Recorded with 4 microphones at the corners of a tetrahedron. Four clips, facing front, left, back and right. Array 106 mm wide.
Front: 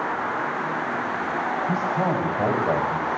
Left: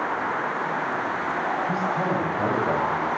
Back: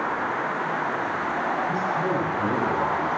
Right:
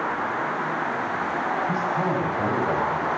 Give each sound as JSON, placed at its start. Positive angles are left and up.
{"t": 1.7, "sound": "a man speaking", "azimuth_deg": 20, "distance_m": 10.0}